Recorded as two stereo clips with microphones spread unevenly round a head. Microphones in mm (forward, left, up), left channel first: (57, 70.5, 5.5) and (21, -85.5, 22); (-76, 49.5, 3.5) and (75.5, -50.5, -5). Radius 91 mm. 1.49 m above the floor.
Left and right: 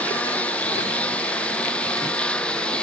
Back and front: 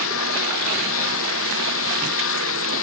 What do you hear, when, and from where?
0.0 s a lawn mower: 160° left; by 2.8 s 165° left